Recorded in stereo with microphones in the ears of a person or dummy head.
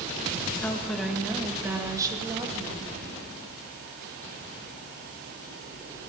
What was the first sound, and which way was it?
A woman speaking, 10° left (ahead or behind).